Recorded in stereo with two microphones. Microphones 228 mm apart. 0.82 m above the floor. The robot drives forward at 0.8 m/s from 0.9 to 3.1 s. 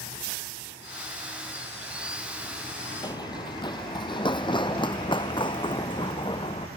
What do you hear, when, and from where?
3.0 s running footsteps: 15° left (ahead or behind); by 6.7 s 20° left (ahead or behind)